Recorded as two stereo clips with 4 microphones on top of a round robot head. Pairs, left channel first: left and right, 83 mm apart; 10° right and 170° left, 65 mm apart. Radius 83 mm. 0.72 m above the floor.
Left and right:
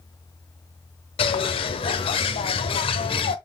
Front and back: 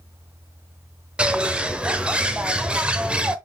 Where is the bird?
100° left, 1.1 m.